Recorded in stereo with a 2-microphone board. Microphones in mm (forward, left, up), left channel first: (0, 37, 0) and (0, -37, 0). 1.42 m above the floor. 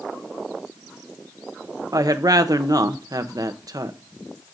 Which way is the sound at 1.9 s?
55° right (ahead or behind).